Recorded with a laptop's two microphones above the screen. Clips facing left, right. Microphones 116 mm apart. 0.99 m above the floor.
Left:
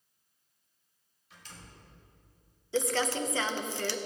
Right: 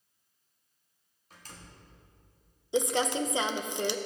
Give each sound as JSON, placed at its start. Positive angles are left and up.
{"t": 1.3, "sound": "a door slam", "side_deg": -40, "distance_m": 1.5}
{"t": 2.7, "sound": "crumpling", "side_deg": -20, "distance_m": 0.6}